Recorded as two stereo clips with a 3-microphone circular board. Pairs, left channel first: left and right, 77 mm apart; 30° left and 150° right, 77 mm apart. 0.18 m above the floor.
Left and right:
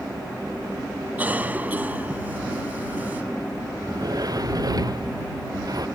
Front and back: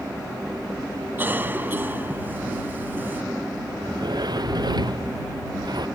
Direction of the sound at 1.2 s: 130° right.